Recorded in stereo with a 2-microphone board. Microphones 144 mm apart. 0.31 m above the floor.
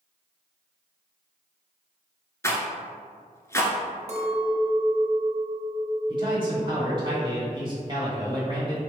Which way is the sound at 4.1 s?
45° right (ahead or behind).